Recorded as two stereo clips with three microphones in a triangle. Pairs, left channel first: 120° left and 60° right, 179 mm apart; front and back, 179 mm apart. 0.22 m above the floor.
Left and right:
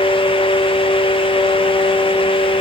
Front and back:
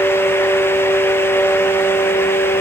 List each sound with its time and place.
Only background noise.